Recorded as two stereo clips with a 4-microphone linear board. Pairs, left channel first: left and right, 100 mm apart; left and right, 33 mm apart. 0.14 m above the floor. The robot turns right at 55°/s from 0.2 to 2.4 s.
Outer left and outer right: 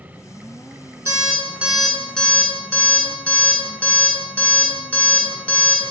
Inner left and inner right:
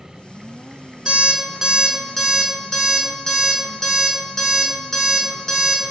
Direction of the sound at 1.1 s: 30° right (ahead or behind).